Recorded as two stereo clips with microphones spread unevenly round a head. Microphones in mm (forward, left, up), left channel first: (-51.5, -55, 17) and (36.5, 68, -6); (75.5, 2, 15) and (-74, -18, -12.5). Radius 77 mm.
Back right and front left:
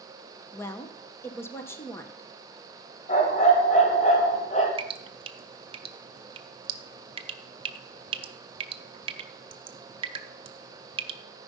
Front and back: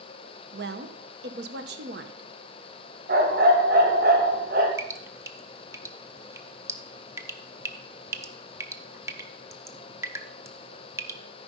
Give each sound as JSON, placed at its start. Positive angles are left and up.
{"t": 0.5, "sound": "a woman speaking", "azimuth_deg": 165, "distance_m": 1.0}
{"t": 3.1, "sound": "a dog barking", "azimuth_deg": -150, "distance_m": 2.0}
{"t": 4.8, "sound": "dripping", "azimuth_deg": 115, "distance_m": 0.7}